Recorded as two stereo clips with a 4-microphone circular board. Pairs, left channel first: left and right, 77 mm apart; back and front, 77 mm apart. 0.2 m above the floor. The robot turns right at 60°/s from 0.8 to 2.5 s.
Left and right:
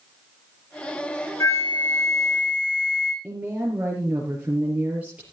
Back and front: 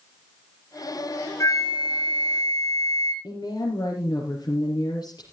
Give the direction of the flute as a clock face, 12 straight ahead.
7 o'clock.